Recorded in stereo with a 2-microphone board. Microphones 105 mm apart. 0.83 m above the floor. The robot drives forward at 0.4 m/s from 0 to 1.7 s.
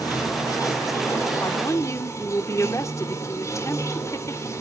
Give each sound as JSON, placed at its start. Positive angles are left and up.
{"t": 0.0, "sound": "running water", "side_deg": 35, "distance_m": 2.5}
{"t": 1.4, "sound": "a woman speaking", "side_deg": 30, "distance_m": 2.0}